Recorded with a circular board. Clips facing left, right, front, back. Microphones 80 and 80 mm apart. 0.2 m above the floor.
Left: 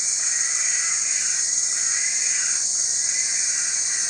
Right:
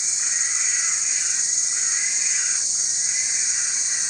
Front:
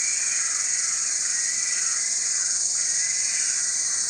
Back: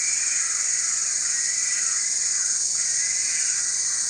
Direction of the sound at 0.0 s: 70° left.